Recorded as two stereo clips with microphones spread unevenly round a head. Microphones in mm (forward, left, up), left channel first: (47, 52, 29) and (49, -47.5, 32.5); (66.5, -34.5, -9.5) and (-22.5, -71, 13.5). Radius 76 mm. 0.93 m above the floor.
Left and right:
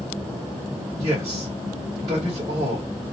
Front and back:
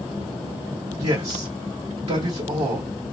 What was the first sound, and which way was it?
A man speaking, 140° right.